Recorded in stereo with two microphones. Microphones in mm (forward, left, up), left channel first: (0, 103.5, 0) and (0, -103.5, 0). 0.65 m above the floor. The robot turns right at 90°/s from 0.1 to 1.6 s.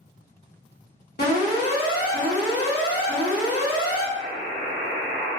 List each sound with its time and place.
1.2 s an alarm: 120° left, 1.2 m; by 4.0 s 155° left, 1.2 m
4.2 s a buzzer: 25° left (ahead or behind), 1.1 m